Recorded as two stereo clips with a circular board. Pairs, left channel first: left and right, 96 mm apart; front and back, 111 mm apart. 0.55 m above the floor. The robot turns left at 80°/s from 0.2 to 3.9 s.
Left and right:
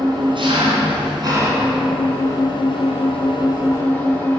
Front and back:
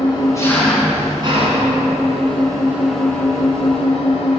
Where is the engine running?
50° right, 2.5 m; by 4.4 s 15° left, 2.5 m.